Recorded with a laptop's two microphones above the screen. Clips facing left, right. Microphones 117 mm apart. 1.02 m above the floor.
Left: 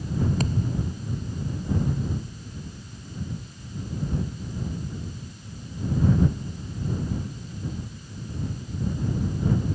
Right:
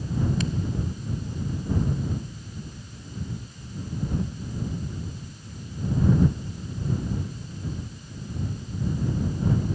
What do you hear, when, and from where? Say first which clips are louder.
0.4 s a thud: left 1 dB; 40° left (ahead or behind)